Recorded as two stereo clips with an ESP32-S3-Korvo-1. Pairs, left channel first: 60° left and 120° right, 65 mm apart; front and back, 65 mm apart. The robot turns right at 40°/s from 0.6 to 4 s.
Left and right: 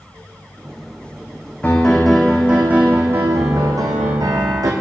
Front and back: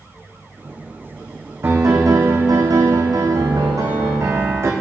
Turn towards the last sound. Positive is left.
turn(degrees=-135)